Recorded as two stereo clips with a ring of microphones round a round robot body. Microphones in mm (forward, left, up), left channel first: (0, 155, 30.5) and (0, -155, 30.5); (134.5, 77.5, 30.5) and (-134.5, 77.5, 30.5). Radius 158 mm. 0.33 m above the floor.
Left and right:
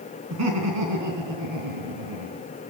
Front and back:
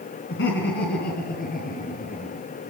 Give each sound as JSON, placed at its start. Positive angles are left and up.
{"t": 0.3, "sound": "laughter", "azimuth_deg": -50, "distance_m": 4.0}